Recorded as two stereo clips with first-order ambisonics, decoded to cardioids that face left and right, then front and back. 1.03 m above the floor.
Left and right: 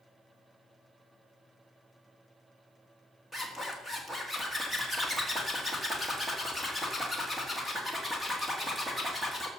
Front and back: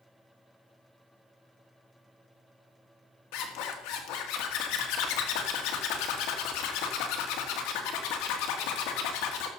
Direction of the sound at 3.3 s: 5° right.